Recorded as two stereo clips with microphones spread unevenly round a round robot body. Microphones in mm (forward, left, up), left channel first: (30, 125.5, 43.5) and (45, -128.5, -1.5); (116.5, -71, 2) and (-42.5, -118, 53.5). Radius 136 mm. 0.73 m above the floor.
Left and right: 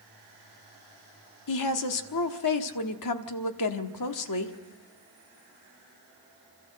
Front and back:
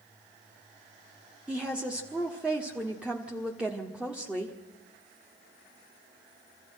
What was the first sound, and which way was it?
A woman speaking, 105° left.